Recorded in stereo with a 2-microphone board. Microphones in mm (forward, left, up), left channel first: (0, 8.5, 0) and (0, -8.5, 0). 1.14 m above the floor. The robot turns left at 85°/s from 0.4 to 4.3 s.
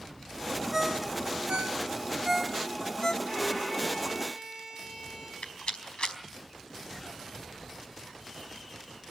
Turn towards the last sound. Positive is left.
turn(degrees=75)  # may be behind; listen again after turning